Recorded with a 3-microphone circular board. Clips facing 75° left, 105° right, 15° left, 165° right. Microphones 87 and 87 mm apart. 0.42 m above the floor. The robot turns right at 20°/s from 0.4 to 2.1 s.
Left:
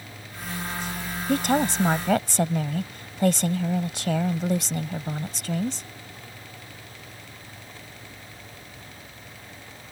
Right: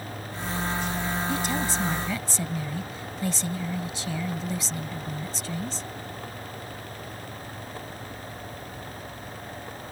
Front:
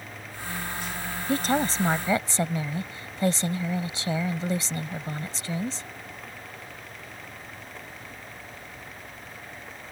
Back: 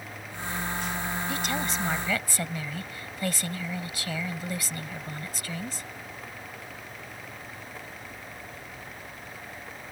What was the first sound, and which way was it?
A woman speaking, 60° left.